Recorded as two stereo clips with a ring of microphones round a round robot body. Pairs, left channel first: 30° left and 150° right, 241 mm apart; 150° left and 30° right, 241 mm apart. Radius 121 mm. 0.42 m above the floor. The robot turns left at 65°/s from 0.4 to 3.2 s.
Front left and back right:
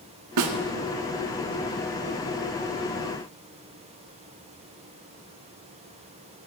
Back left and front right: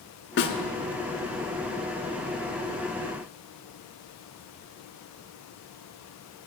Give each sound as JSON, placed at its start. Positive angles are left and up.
{"t": 0.4, "sound": "a snare drum", "azimuth_deg": -165, "distance_m": 0.9}